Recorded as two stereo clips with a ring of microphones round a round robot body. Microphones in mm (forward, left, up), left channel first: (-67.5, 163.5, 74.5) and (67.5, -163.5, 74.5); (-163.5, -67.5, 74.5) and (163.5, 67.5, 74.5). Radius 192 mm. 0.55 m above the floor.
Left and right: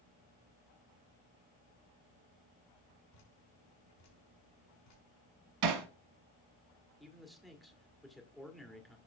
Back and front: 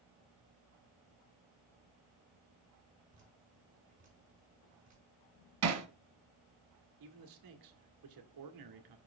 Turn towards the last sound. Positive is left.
turn(degrees=25)